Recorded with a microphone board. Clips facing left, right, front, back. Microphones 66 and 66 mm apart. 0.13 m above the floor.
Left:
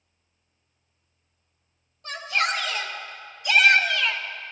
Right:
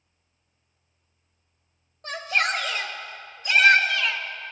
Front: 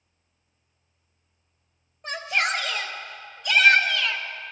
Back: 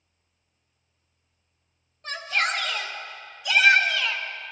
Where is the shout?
75° right, 2.5 m; by 4.2 s 145° right, 1.8 m.